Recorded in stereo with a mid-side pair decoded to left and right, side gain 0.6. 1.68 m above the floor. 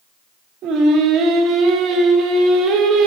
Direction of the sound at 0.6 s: 60° right.